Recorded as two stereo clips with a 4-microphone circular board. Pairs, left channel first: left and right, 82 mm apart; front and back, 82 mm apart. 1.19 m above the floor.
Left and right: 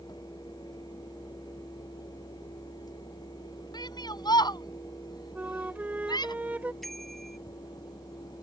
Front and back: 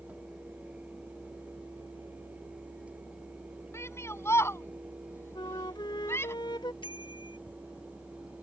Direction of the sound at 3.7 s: 55° left.